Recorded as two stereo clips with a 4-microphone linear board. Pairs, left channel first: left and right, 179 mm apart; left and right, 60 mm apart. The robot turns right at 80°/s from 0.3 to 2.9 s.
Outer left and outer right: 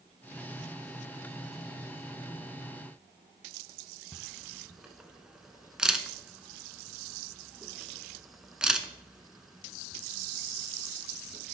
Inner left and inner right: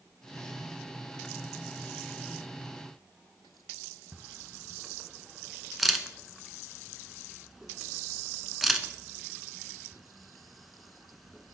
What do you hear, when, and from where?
4.1 s a camera shutter: 5° right (ahead or behind), 0.5 m